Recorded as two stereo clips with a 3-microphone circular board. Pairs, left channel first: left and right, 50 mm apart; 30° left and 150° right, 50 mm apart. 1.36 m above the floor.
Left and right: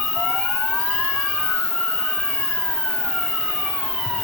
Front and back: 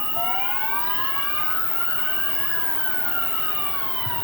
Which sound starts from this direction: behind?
An insect, at 0.0 s.